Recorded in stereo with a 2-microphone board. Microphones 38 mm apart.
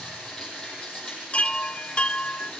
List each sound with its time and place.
0.0 s running water: 20° left (ahead or behind), 7.5 m
1.3 s a chime: 35° left (ahead or behind), 0.6 m